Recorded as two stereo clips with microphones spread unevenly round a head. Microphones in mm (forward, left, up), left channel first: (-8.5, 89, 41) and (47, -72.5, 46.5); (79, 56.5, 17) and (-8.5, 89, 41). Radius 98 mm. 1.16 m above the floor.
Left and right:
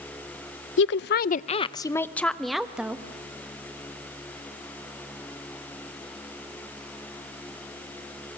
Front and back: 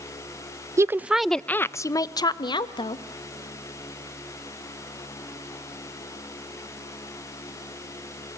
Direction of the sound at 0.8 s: 100° left.